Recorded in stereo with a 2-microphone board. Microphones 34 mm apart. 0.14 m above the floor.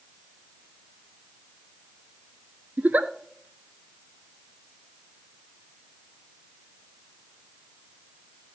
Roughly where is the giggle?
Right.